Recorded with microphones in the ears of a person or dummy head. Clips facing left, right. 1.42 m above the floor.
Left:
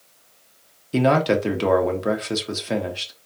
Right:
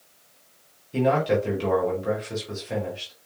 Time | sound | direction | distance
0.9 | a man speaking | 75° left (ahead or behind) | 1.2 m